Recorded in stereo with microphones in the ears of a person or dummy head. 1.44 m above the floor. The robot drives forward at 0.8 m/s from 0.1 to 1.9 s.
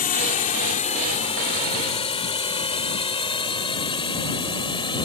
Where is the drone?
35° left (ahead or behind); by 5.1 s 20° left (ahead or behind).